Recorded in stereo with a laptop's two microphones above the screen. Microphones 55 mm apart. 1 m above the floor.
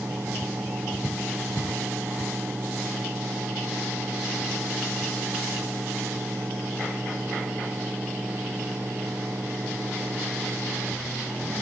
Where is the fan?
40° right (ahead or behind).